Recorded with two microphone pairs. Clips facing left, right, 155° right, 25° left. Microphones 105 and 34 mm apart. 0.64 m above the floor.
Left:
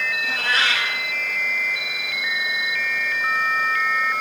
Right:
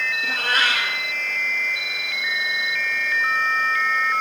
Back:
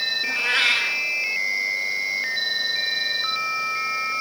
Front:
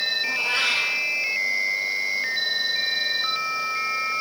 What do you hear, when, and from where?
0.2 s a cat meowing: 130° right, 2 m